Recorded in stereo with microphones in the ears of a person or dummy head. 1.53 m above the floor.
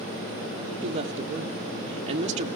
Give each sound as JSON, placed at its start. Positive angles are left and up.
{"t": 0.8, "sound": "a woman speaking", "side_deg": -35, "distance_m": 1.3}